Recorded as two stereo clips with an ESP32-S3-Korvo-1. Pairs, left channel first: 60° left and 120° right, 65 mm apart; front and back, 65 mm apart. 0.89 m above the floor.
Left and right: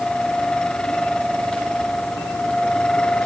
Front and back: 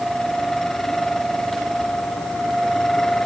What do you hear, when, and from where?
Only background noise.